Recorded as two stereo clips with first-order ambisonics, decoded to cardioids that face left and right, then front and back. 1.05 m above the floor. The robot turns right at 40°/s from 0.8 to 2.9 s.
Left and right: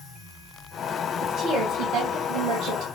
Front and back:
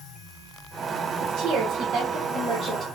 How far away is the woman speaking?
About 1.1 m.